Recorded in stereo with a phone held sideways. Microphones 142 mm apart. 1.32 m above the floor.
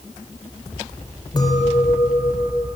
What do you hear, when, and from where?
1.4 s a clink: 30° left (ahead or behind), 3.5 m